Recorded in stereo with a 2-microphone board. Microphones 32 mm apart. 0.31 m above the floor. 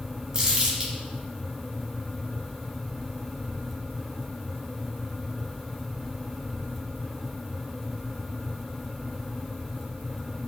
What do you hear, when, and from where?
0.3 s crumpling: 30° right (ahead or behind), 1.2 m